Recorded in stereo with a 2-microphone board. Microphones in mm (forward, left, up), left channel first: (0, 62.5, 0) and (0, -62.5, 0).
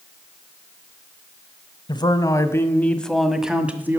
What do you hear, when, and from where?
1.9 s a man speaking: 35° left (ahead or behind), 1.4 m; by 4.0 s 15° right (ahead or behind), 1.6 m